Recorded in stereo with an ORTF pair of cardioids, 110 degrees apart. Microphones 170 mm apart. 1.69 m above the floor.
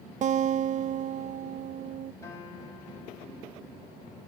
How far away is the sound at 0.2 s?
About 0.5 m.